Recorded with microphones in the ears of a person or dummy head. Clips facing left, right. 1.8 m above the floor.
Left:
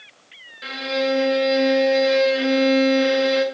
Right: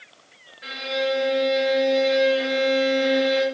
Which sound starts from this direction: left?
A violin, at 0.6 s.